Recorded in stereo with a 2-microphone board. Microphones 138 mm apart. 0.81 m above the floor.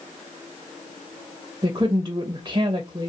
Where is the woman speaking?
30° right (ahead or behind), 0.5 m.